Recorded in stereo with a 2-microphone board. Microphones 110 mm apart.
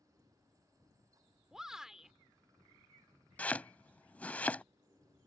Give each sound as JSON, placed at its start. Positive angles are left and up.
{"t": 1.5, "sound": "a shout", "side_deg": -5}
{"t": 3.4, "sound": "chopping", "side_deg": 15}